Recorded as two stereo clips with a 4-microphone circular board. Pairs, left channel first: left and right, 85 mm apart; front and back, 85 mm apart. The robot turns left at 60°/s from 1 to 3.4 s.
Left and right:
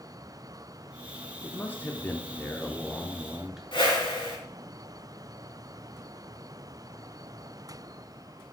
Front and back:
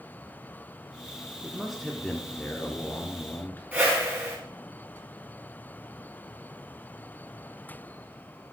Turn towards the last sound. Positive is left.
turn(degrees=105)